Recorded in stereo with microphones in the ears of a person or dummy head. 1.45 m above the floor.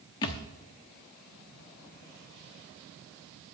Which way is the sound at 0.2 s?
25° left (ahead or behind).